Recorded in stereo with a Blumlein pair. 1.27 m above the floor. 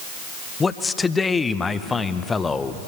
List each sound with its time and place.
0.6 s a man speaking: 15° left, 0.9 m